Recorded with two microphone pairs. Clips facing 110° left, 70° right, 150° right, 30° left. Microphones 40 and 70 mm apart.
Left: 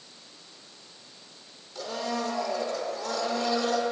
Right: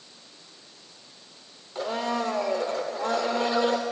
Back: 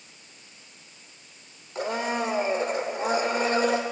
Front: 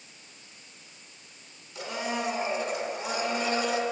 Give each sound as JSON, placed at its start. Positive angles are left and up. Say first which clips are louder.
{"t": 1.8, "sound": "a blender", "louder": "right 4 dB, back 5 dB", "azimuth_deg": -115, "distance_m": 0.8}